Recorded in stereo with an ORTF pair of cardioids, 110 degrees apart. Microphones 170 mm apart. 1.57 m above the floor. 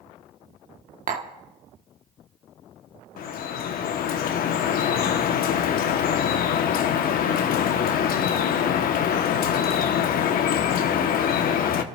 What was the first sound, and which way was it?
Tapping, 55° right.